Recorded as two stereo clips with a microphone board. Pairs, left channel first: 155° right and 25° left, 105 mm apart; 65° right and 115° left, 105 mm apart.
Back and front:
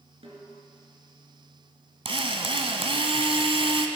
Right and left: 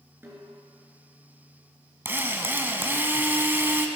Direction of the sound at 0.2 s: 45° left.